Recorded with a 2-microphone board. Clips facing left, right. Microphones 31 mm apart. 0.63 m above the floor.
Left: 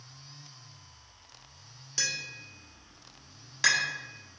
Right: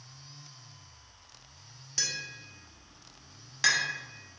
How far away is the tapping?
About 0.8 m.